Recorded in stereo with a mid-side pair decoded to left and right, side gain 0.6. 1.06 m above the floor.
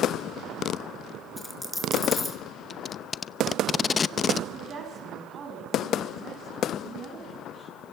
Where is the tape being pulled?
30° left, 0.7 m.